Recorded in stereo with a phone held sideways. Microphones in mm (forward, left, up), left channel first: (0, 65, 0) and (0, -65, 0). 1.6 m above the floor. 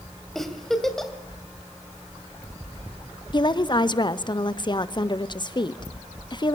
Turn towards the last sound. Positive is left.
turn(degrees=35)  # may be behind; listen again after turning